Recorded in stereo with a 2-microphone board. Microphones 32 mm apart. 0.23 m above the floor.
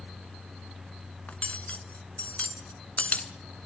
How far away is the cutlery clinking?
About 1.4 m.